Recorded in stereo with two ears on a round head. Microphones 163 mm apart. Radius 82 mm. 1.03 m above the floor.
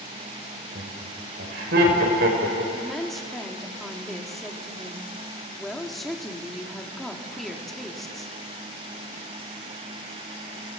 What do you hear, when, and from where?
0.8 s laughter: 70° right (ahead or behind), 4.5 m
2.7 s a woman speaking: centre (ahead or behind), 2.0 m